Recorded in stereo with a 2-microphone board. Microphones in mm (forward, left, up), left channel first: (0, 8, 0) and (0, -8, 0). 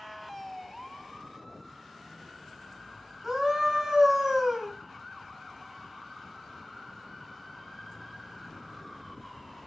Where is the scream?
20° right (ahead or behind), 1.4 m.